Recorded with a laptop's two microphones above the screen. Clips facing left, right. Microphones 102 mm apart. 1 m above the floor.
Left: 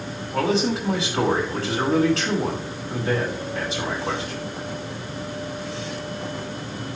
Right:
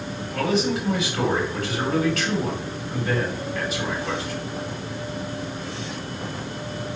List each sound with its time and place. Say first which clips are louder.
0.3 s a man speaking: left 1 dB; 30° left (ahead or behind), 5.5 m